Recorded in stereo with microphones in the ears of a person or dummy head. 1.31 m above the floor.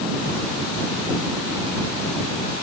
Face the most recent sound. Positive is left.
No sound to turn to.